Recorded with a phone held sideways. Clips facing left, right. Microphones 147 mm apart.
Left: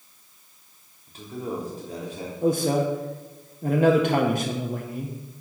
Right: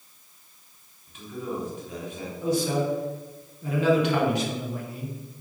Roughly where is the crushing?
I don't hear crushing.